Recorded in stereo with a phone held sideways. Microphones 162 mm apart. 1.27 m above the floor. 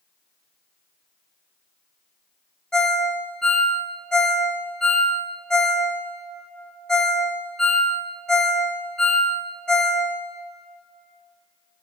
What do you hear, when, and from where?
2.7 s a ringtone: 5° left (ahead or behind), 1.0 m